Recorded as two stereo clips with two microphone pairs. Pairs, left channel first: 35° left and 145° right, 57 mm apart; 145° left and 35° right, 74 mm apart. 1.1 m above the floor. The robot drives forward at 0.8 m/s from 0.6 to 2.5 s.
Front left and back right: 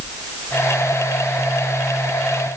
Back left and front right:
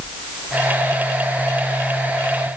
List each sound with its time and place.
Only background noise.